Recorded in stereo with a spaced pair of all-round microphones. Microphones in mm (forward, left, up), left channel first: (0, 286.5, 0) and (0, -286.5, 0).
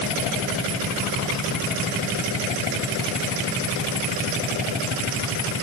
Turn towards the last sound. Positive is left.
No sound to turn to.